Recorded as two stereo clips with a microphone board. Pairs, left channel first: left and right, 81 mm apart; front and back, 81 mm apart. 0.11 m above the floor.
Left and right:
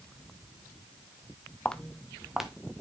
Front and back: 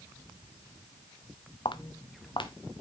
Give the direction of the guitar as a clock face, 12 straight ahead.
No guitar in this recording.